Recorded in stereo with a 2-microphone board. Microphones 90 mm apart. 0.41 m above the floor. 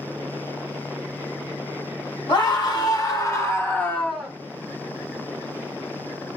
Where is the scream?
55° left (ahead or behind), 1.5 m; by 4.3 s 5° right (ahead or behind), 0.8 m.